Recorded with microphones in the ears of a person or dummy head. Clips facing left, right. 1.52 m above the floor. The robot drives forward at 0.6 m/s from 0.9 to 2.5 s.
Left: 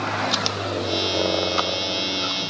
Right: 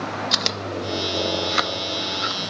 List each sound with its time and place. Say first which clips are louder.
0.3 s chewing: left 2 dB; 30° right (ahead or behind); by 2.4 s 20° right (ahead or behind)